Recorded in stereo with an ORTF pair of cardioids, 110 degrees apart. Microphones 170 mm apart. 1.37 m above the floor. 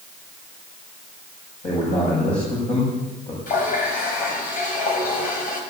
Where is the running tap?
55° left, 5 m.